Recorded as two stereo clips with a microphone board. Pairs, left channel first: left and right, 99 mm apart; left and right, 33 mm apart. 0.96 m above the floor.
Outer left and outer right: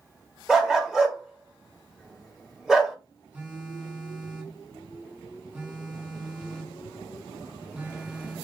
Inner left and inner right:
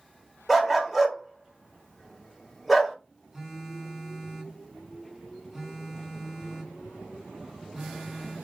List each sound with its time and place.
0.5 s a dog barking: 5° right (ahead or behind), 0.9 m
3.3 s a phone buzzing: 20° right (ahead or behind), 1.7 m